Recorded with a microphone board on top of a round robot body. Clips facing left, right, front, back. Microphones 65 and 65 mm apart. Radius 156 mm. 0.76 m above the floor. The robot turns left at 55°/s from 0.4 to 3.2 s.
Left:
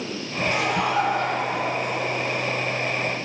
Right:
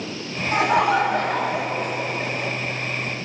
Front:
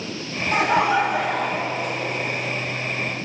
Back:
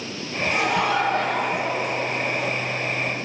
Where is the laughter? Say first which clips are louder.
Right 5 dB, front 4 dB; 40° right, 3 m; by 2.5 s 150° right, 3 m.